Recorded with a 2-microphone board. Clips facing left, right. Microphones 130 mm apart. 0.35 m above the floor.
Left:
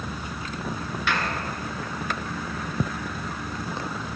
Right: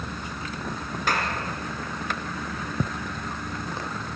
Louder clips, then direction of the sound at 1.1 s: Right 1 dB; 40° right (ahead or behind).